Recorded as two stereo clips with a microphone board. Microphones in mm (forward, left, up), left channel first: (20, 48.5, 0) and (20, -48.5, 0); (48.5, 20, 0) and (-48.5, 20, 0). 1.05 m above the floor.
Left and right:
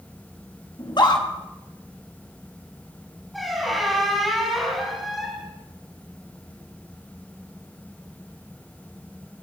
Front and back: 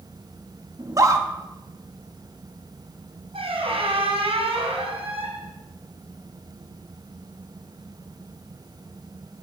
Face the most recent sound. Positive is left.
turn(degrees=180)